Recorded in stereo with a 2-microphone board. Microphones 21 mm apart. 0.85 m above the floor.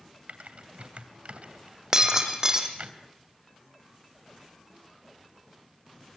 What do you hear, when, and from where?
0.3 s typing on a keyboard: 70° right (ahead or behind), 2.5 m
1.9 s breaking glass: 25° right (ahead or behind), 3 m